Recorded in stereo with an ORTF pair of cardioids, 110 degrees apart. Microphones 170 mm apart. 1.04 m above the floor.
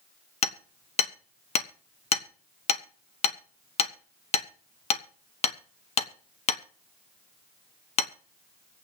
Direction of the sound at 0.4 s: 40° left.